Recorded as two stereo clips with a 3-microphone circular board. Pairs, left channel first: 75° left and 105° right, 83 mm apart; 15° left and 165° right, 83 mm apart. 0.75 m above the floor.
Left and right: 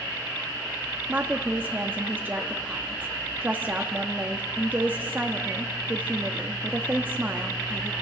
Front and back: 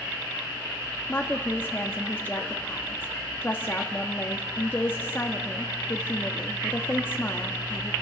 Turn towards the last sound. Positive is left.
turn(degrees=-45)